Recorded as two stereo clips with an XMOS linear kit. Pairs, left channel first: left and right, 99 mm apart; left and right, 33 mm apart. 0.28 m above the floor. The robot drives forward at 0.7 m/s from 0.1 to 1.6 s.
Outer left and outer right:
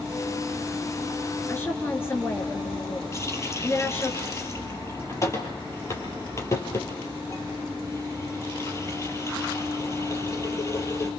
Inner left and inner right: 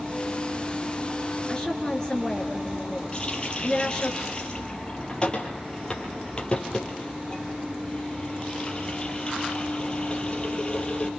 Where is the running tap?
30° left (ahead or behind), 4.5 m.